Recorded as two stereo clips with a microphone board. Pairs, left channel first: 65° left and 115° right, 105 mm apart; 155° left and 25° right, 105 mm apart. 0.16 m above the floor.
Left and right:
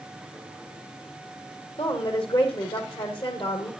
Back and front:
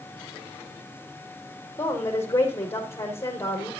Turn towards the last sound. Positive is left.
turn(degrees=90)